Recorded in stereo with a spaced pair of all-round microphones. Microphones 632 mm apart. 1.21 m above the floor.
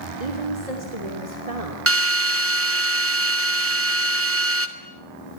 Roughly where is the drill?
Centre.